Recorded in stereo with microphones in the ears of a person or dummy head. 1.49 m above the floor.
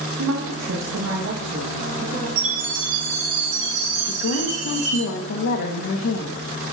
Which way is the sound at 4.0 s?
70° left (ahead or behind).